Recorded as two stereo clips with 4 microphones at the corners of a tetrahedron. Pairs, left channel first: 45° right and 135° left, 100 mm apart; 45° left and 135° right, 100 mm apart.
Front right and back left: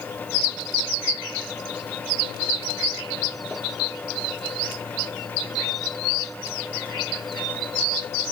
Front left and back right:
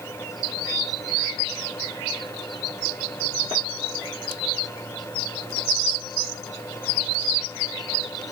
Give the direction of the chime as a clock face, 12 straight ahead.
No chime in this recording.